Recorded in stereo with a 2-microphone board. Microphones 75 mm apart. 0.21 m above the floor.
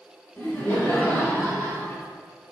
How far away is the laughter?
About 3 m.